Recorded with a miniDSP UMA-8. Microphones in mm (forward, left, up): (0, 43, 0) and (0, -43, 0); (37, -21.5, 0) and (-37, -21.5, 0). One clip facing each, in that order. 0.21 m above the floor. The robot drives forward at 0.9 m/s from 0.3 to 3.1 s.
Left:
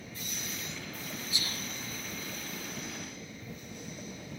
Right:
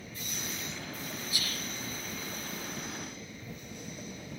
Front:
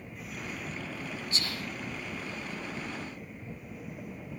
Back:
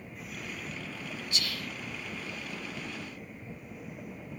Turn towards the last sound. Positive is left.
turn(degrees=125)